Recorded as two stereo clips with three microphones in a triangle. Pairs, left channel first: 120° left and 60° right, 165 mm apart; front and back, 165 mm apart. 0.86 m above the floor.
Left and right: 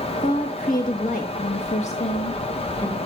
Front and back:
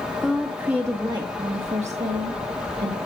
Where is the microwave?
I don't hear a microwave.